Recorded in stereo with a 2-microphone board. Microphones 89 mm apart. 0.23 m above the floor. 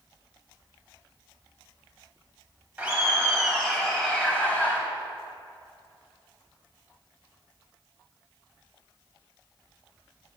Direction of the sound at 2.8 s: 15° right (ahead or behind).